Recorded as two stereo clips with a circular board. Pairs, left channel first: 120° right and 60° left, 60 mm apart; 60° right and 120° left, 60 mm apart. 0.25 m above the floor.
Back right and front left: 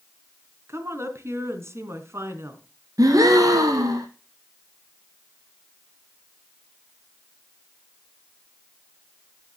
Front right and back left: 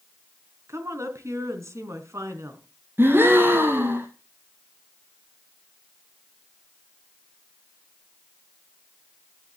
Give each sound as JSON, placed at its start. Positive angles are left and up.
{"t": 0.7, "sound": "a woman speaking", "azimuth_deg": 90, "distance_m": 3.0}
{"t": 3.0, "sound": "a gasp", "azimuth_deg": 65, "distance_m": 2.0}